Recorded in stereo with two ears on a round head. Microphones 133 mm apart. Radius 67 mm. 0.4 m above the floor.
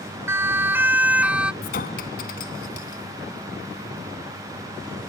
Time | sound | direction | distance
0.3 | a siren | 15° right (ahead or behind) | ?
1.6 | a clink | 65° left (ahead or behind) | ?